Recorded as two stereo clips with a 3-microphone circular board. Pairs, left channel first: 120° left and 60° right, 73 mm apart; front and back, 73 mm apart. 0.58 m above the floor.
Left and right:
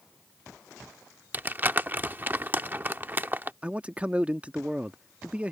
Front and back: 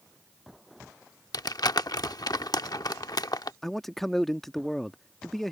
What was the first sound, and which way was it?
Crumpling, straight ahead.